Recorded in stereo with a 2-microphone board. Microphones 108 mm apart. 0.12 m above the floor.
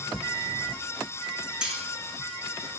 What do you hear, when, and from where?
1.6 s cutlery clinking: 5° right (ahead or behind), 4.5 m